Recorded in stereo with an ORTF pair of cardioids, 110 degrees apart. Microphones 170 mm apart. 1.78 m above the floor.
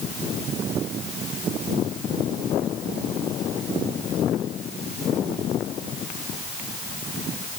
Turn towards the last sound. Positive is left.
No sound to turn to.